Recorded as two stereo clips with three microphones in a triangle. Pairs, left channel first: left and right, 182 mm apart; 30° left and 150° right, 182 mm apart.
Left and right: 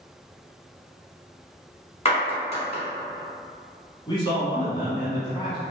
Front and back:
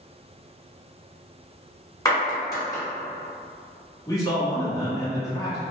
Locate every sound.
2.0 s a clap: 80° left, 1.2 m
4.1 s a man speaking: 70° left, 1.2 m